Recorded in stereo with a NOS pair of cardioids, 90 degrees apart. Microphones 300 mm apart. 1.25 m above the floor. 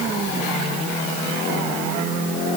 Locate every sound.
Only background noise.